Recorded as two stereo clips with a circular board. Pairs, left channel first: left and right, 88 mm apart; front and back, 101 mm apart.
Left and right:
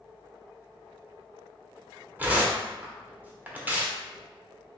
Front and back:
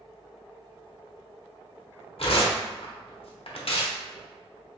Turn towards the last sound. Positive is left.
turn(degrees=-20)